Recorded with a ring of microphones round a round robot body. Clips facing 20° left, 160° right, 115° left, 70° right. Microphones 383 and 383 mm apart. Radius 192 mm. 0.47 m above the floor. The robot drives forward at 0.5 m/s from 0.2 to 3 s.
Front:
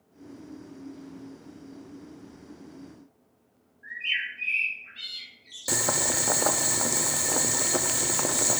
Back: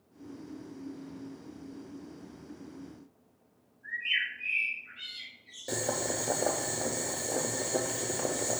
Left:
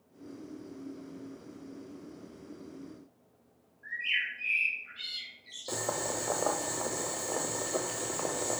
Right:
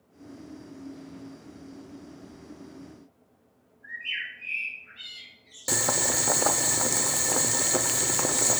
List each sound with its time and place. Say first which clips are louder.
3.8 s a bird: front 1 dB, left 2 dB; 40° left, 4 m
5.7 s boiling: front 2 dB, right 4 dB; 30° right, 0.6 m